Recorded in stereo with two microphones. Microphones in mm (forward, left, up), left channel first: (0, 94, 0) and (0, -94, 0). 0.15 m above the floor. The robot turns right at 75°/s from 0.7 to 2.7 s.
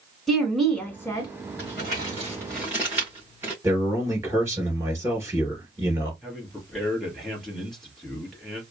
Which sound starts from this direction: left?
Crumpling, at 1.6 s.